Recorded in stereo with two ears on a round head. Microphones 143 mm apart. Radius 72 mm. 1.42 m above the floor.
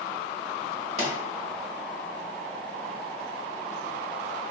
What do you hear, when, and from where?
1.0 s a pop: 45° right (ahead or behind), 1.4 m